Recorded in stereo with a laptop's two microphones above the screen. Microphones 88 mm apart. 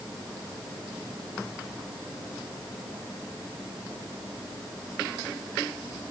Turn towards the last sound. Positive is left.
No sound to turn to.